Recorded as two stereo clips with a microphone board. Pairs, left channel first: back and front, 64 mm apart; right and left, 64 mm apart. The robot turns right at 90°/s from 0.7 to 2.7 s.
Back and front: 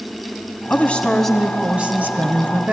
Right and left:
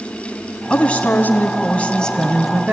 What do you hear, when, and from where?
0.7 s a woman speaking: 150° right, 1.2 m; by 2.7 s 30° left, 1.2 m